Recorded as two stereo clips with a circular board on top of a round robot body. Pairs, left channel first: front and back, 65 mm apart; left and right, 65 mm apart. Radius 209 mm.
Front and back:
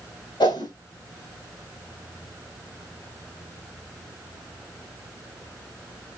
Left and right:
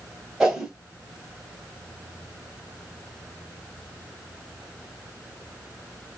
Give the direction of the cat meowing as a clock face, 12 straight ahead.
No cat meowing in this recording.